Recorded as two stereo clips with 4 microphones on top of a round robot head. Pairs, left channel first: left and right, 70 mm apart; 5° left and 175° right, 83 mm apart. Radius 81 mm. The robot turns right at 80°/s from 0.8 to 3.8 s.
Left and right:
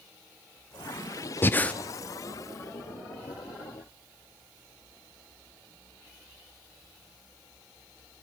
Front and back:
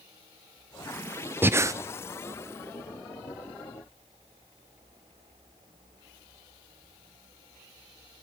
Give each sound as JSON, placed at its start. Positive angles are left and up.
{"t": 1.4, "sound": "breathing", "azimuth_deg": 130, "distance_m": 0.6}